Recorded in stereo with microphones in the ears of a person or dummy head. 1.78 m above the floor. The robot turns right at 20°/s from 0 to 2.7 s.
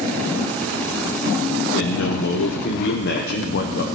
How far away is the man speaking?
About 0.8 m.